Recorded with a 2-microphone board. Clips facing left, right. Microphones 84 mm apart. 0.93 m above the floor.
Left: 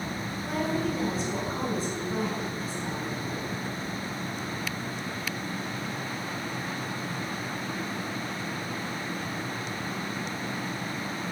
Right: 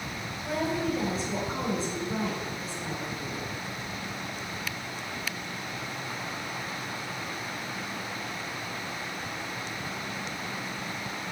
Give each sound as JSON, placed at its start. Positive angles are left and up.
{"t": 0.5, "sound": "a woman speaking", "side_deg": -30, "distance_m": 4.0}